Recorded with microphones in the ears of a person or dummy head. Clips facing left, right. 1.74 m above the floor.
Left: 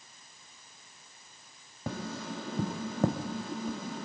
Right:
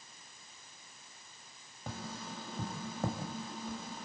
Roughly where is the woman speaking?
No woman speaking in this recording.